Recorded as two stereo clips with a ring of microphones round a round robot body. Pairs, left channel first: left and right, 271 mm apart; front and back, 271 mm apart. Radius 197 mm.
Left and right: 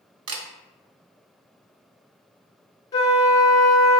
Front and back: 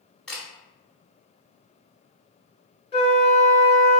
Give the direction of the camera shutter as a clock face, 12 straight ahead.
3 o'clock.